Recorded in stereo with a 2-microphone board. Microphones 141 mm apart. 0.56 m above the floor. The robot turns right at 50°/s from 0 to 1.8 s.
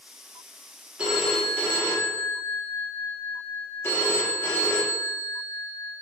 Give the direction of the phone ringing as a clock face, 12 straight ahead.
12 o'clock.